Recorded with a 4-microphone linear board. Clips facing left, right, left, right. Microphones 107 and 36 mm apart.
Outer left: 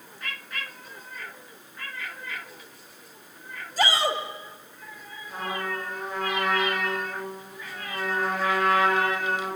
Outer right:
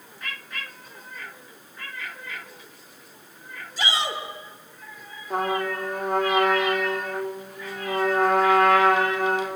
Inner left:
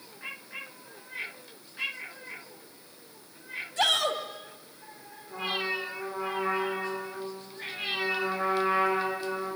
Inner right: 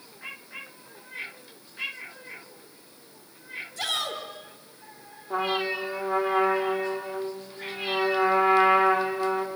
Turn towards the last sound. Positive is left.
turn(degrees=-50)  # may be behind; listen again after turning